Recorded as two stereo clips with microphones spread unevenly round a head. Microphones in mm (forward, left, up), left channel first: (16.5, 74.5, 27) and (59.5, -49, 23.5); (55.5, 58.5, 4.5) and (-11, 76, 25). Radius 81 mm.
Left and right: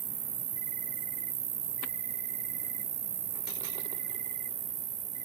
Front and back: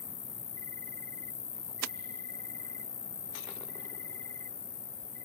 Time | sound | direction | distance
0.0 | an insect | 60° right | ?